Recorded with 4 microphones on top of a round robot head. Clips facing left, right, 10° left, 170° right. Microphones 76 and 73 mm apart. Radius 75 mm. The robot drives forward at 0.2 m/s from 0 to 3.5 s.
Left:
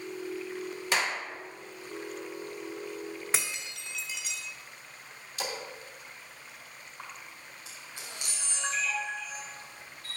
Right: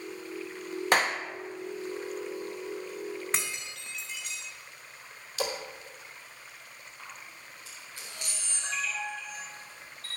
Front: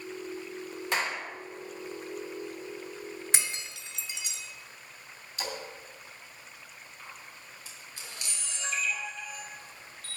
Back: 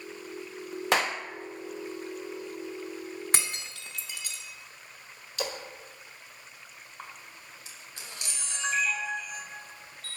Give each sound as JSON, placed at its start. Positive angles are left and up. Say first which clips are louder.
{"t": 0.9, "sound": "a clap", "louder": "right 4 dB, back 4 dB", "azimuth_deg": -140, "distance_m": 0.8}
{"t": 3.3, "sound": "breaking glass", "louder": "even, back 1 dB", "azimuth_deg": 175, "distance_m": 0.9}
{"t": 5.4, "sound": "a splash", "louder": "right 4 dB, back 3 dB", "azimuth_deg": -125, "distance_m": 1.5}
{"t": 7.0, "sound": "a camera shutter", "louder": "left 2 dB, back 3 dB", "azimuth_deg": 160, "distance_m": 4.0}